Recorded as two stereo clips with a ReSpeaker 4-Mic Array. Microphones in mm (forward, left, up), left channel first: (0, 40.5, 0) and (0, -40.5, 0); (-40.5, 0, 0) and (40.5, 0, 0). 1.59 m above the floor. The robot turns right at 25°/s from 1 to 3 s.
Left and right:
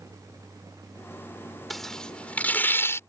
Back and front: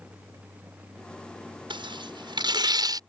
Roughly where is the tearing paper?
Ahead.